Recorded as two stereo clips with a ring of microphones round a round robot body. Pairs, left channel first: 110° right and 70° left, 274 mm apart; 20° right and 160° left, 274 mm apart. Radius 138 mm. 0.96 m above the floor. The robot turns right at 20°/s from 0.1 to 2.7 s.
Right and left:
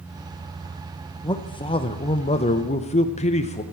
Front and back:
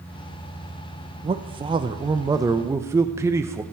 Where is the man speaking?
165° right, 0.7 m; by 3.6 s 135° right, 0.7 m.